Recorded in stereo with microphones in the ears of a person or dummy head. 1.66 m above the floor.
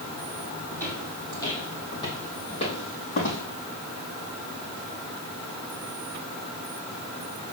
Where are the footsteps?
15° left (ahead or behind), 4.5 m; by 3.4 s 45° left (ahead or behind), 4.5 m.